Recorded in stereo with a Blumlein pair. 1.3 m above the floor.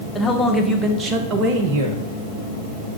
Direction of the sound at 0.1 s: 10° left.